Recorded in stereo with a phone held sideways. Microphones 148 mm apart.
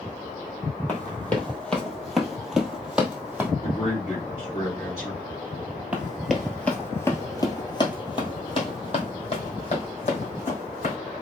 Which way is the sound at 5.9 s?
5° right (ahead or behind).